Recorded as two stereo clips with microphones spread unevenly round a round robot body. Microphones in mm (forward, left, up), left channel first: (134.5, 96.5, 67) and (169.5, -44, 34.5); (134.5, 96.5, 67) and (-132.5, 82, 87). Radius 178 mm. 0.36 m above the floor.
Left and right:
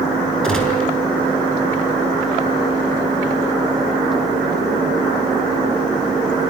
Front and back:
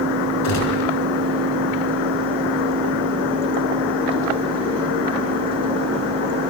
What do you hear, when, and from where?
0.4 s a gunshot: 20° left, 5 m